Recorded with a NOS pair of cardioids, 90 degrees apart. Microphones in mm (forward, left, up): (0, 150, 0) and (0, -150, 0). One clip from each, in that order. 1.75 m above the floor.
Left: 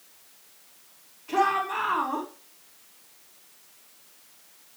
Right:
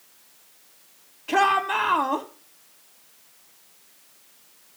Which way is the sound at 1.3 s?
65° right.